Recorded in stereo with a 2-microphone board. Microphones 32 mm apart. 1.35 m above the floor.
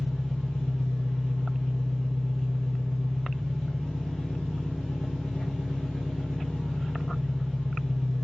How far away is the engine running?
About 1.5 m.